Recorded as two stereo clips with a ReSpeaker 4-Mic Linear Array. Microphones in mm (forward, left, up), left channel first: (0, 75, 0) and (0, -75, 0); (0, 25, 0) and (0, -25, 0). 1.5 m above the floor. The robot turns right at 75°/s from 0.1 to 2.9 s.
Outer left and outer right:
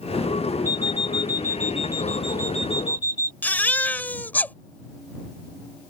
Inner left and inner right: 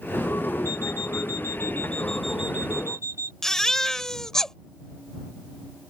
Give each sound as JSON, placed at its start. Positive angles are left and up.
{"t": 0.7, "sound": "an alarm clock", "azimuth_deg": 65}
{"t": 3.4, "sound": "a baby crying", "side_deg": 10}